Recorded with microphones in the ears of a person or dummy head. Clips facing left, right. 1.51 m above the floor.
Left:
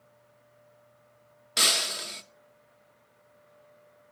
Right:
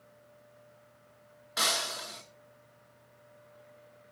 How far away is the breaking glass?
About 0.9 m.